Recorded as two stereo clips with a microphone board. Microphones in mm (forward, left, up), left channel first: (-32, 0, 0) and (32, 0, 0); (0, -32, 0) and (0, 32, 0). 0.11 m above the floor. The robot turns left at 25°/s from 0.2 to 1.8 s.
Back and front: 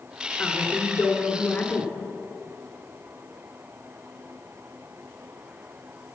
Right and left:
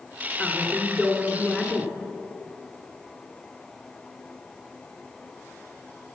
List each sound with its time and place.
0.4 s a woman speaking: 150° right, 1.5 m; by 1.9 s 175° left, 1.5 m